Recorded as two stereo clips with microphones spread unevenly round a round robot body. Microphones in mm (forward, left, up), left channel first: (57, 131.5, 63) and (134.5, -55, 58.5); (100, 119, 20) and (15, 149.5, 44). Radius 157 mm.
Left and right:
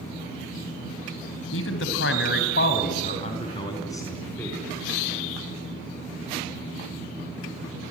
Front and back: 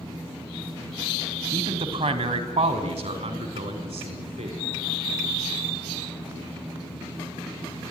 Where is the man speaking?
140° left, 2.5 m; by 4.6 s 165° right, 4.5 m.